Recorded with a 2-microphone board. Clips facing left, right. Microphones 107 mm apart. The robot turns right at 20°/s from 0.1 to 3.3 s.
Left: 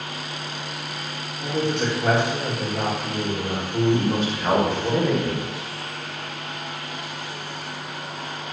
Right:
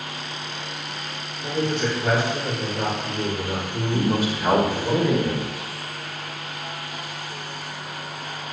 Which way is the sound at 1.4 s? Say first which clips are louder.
Even; 55° left.